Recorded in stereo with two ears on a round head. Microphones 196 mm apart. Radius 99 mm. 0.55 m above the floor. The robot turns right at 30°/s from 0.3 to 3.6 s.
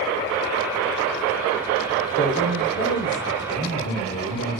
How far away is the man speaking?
About 3 m.